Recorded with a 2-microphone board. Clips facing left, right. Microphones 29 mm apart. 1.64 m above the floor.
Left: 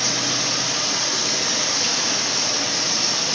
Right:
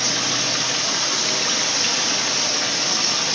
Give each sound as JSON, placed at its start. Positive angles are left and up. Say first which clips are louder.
{"t": 0.0, "sound": "running water", "louder": "right 1 dB", "side_deg": -25, "distance_m": 1.1}